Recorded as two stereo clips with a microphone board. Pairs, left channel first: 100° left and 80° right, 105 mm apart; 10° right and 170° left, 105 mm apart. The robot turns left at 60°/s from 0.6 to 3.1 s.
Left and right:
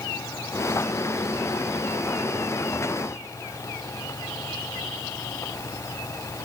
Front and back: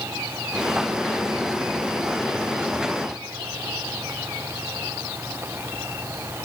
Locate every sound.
Only background noise.